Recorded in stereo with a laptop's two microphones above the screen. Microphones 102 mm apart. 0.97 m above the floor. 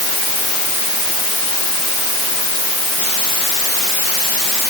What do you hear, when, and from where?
Only background noise.